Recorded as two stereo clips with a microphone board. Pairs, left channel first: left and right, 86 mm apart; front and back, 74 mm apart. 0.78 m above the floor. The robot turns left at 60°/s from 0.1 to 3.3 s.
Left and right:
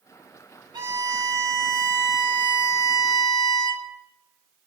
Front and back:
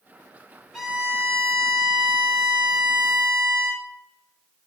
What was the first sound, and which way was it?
A violin, 95° right.